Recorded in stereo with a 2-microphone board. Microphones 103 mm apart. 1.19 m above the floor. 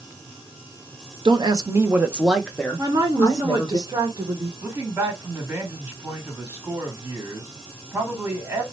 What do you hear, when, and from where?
1.2 s a woman speaking: 50° right (ahead or behind), 0.7 m; by 3.8 s 35° left (ahead or behind), 1.1 m
2.8 s a woman speaking: 40° right (ahead or behind), 1.1 m
4.6 s a man speaking: 20° right (ahead or behind), 1.7 m